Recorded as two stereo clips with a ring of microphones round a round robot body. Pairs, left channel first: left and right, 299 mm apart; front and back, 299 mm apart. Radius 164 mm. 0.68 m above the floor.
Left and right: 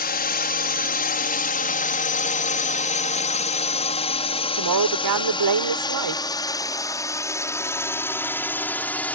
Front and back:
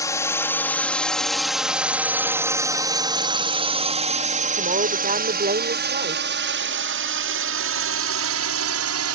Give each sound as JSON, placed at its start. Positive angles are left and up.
{"t": 0.0, "sound": "a drone", "azimuth_deg": 70}
{"t": 4.5, "sound": "a woman speaking", "azimuth_deg": -115}